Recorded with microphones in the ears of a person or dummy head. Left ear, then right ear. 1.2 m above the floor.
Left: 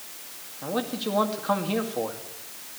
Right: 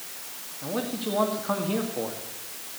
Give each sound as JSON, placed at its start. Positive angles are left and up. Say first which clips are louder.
{"t": 0.6, "sound": "a man speaking", "louder": "left 2 dB", "side_deg": 80, "distance_m": 2.0}